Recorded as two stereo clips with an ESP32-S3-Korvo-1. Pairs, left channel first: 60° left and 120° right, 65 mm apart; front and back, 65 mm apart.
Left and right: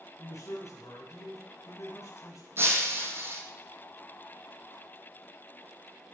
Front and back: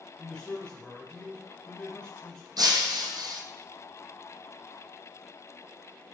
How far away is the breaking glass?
About 1.3 m.